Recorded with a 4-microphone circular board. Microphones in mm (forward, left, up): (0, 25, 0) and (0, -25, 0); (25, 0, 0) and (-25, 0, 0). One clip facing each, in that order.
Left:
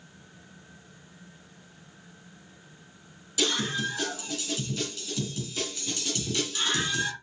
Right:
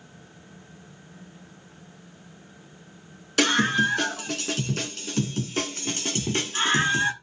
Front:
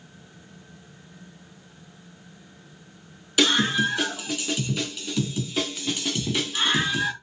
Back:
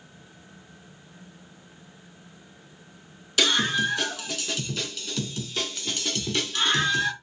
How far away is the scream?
About 4 m.